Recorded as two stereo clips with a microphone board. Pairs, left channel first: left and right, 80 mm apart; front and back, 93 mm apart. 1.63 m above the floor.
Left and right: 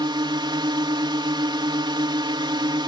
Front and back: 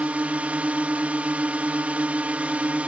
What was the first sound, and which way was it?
A drone, 105° right.